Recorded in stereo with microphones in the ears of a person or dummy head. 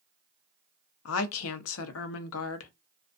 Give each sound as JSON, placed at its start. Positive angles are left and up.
{"t": 1.1, "sound": "a woman speaking", "side_deg": 80, "distance_m": 0.7}